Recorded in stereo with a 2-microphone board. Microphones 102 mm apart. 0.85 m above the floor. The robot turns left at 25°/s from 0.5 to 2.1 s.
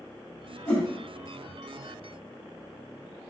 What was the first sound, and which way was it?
A whoosh, 10° left (ahead or behind).